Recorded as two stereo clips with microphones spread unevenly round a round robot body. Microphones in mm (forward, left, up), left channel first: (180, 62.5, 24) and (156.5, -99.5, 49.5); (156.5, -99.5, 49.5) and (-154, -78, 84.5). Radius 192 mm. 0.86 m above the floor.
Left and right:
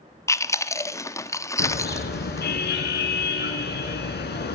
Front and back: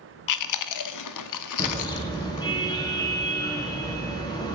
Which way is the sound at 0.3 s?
10° left.